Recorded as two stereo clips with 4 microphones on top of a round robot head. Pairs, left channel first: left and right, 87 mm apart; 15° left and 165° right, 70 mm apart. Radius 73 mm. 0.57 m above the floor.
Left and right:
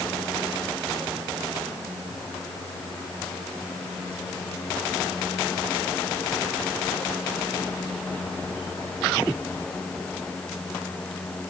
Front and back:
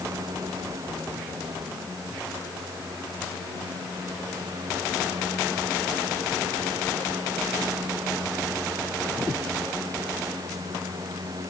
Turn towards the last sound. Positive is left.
No sound to turn to.